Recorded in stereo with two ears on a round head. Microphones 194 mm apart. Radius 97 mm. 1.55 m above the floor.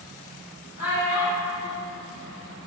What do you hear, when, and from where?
0.8 s a child speaking: 10° right (ahead or behind), 1.8 m